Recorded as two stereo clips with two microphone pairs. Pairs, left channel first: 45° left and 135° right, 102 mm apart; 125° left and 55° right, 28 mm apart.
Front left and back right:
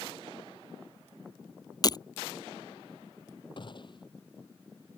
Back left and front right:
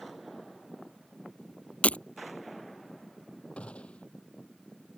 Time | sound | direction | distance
1.8 | breaking glass | 90° left | ?
3.6 | a gunshot | 80° left | ?